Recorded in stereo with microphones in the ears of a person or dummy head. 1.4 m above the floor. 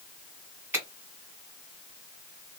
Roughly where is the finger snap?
Centre.